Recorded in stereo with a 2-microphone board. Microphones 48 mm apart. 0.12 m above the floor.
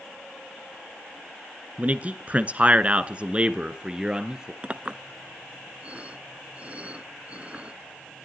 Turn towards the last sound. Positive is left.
turn(degrees=-25)  # may be behind; listen again after turning